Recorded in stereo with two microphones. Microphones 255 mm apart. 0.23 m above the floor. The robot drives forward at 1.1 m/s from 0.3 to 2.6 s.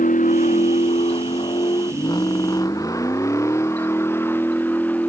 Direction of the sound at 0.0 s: 35° left (ahead or behind).